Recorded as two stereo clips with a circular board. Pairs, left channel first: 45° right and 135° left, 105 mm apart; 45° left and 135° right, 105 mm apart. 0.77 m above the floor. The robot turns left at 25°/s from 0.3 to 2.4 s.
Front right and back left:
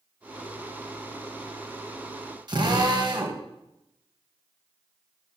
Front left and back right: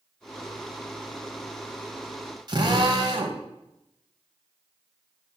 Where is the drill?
Straight behind, 2.5 m.